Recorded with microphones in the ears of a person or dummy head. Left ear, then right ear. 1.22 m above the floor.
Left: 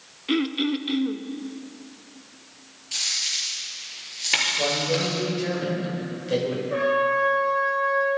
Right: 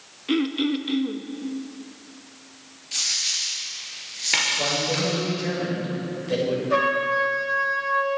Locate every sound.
0.3 s throat clearing: 5° left (ahead or behind), 0.6 m
2.9 s a dropped coin: 10° left (ahead or behind), 4 m
4.6 s a man speaking: centre (ahead or behind), 6 m
6.7 s a trumpet: 65° right (ahead or behind), 5.5 m